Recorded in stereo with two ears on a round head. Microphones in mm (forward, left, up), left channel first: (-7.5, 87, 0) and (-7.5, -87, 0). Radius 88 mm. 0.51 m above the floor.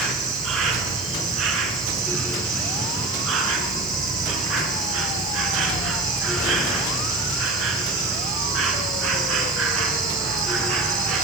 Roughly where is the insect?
Right.